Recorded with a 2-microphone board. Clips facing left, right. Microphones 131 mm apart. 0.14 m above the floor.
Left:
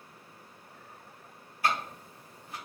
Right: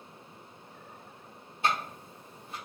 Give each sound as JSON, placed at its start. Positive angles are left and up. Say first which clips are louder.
{"t": 1.6, "sound": "ticking", "louder": "even", "side_deg": -25, "distance_m": 1.1}